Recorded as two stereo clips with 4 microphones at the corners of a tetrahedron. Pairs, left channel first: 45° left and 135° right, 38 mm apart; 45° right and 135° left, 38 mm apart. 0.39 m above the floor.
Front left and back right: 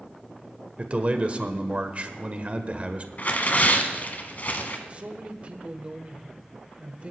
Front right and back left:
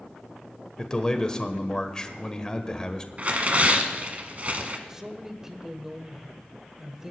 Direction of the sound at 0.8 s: 105° right.